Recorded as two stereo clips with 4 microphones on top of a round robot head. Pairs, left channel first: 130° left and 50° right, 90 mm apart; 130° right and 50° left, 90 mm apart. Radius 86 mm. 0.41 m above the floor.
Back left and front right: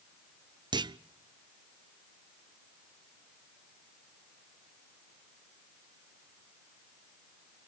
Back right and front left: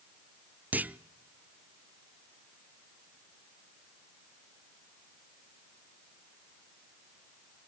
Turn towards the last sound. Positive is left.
turn(degrees=-20)